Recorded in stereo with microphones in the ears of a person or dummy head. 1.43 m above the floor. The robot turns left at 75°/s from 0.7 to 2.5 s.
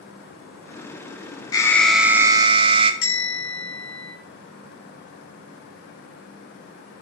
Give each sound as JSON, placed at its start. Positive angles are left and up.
{"t": 1.5, "sound": "an alarm", "azimuth_deg": 30, "distance_m": 0.8}
{"t": 3.0, "sound": "a bell", "side_deg": 75, "distance_m": 4.0}